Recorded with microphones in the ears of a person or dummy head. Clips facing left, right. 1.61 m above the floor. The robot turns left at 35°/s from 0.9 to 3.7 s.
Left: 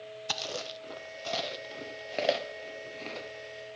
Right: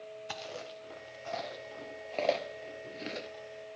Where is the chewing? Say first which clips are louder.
Left 6 dB; 60° left (ahead or behind), 0.7 m; by 3.3 s 25° right (ahead or behind), 0.7 m.